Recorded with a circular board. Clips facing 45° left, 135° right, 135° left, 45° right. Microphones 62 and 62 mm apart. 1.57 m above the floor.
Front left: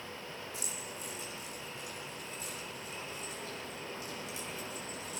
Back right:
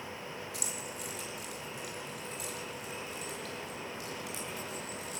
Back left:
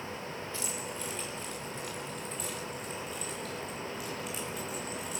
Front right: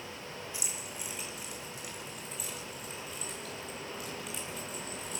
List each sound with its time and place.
0.5 s keys jangling: 120° right, 5 m; by 5.2 s 140° right, 9.5 m